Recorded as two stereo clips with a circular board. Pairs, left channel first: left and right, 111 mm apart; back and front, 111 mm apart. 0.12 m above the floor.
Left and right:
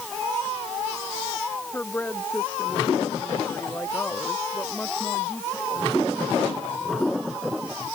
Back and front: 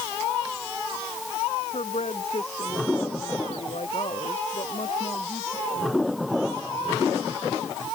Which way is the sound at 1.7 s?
160° left.